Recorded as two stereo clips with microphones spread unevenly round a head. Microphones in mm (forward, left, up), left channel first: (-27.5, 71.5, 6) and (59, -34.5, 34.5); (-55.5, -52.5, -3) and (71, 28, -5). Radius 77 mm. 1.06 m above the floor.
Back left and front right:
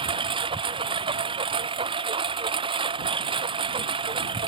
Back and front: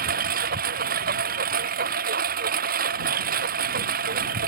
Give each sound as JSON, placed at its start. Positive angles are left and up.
{"t": 0.0, "sound": "a lawn mower", "azimuth_deg": 5}